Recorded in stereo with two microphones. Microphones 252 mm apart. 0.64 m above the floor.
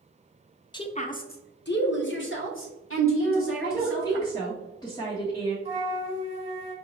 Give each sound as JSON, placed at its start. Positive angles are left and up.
{"t": 0.7, "sound": "a woman speaking", "side_deg": 20, "distance_m": 0.5}
{"t": 3.2, "sound": "a woman speaking", "side_deg": 15, "distance_m": 1.2}
{"t": 5.7, "sound": "a flute", "side_deg": -25, "distance_m": 1.2}